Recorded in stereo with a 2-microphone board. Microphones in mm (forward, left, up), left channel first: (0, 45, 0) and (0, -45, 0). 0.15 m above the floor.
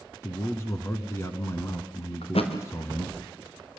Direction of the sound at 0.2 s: 30° left (ahead or behind).